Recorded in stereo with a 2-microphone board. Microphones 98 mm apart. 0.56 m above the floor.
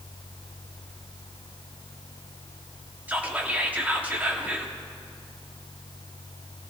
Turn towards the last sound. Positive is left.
turn(degrees=-15)  # may be behind; listen again after turning